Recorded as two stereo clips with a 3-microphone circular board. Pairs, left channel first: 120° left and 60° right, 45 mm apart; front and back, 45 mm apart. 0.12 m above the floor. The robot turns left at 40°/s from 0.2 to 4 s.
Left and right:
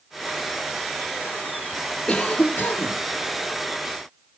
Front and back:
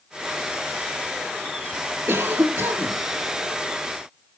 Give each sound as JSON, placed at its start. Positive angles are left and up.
{"t": 2.1, "sound": "a cough", "azimuth_deg": -170, "distance_m": 2.5}